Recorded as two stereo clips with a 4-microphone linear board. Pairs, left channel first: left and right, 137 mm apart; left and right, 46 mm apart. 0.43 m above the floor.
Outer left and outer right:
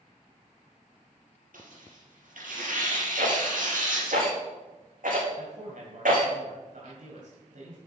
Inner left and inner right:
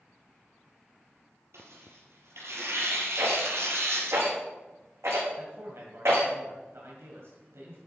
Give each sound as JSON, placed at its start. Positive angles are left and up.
{"t": 1.5, "sound": "tearing paper", "side_deg": -85, "distance_m": 4.5}
{"t": 3.2, "sound": "a rattle", "side_deg": -80, "distance_m": 5.0}
{"t": 5.4, "sound": "a man speaking", "side_deg": -65, "distance_m": 2.0}